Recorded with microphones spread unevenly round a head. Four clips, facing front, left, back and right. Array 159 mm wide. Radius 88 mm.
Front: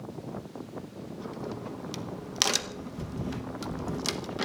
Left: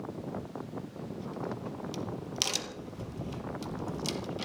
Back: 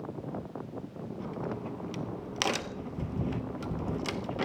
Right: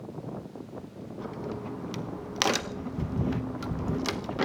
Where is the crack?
85° right, 1.0 m.